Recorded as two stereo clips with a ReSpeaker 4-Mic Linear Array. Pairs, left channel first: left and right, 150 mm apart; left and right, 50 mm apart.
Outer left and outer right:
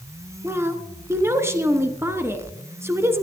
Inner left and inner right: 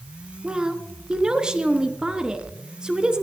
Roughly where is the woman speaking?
Centre.